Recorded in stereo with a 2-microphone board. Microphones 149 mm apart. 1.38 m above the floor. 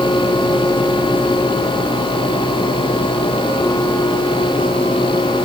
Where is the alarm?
No alarm in this recording.